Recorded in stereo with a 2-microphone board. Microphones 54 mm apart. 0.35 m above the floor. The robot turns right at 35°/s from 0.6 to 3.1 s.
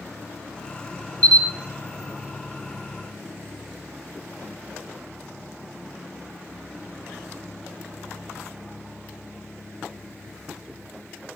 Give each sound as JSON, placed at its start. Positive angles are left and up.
{"t": 1.2, "sound": "a camera shutter", "side_deg": 25, "distance_m": 1.2}